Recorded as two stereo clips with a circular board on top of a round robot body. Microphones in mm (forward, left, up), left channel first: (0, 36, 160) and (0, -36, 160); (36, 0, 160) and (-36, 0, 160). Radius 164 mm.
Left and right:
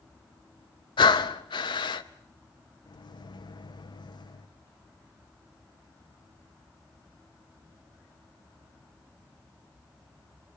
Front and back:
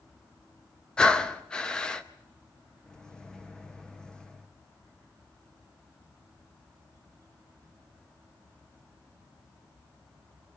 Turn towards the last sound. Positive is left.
turn(degrees=80)